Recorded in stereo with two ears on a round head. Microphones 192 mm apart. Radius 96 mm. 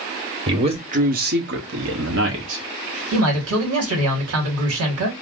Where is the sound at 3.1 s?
75° right (ahead or behind), 1.5 m.